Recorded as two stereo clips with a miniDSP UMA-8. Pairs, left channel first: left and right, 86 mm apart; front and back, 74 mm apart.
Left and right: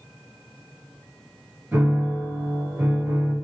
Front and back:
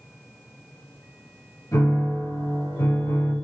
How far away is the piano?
About 2 m.